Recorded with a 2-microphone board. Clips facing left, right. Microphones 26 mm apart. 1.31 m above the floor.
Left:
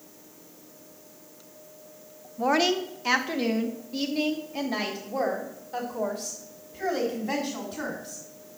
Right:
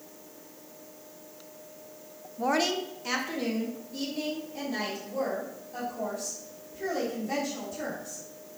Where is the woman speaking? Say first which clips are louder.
Left 4 dB; 10° left (ahead or behind), 0.6 m; by 8.2 s 60° left (ahead or behind), 3.5 m.